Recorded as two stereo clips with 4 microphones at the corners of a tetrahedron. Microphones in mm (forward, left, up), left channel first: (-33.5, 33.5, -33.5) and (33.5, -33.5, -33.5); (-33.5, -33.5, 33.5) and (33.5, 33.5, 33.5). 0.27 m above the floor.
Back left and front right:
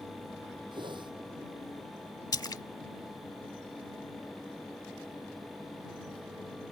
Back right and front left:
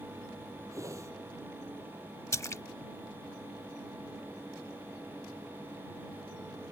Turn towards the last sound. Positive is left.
turn(degrees=170)